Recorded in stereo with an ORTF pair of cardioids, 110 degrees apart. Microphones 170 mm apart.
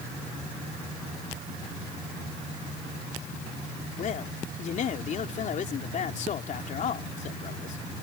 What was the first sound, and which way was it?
A man speaking, 50° left.